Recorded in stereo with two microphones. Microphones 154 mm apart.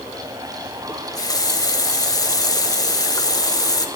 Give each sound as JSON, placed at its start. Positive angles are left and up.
{"t": 0.9, "sound": "a running tap", "side_deg": 25, "distance_m": 0.7}